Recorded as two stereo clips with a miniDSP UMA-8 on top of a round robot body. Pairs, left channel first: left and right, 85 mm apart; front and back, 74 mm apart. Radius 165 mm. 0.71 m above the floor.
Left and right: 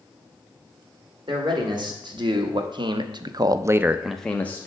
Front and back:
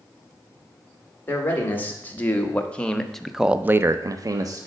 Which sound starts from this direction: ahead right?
A man speaking, at 1.3 s.